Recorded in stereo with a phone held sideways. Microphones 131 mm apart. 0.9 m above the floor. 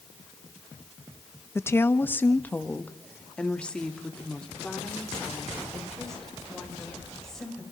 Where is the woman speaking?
20° left (ahead or behind), 0.6 m; by 7.6 s 5° left (ahead or behind), 5 m.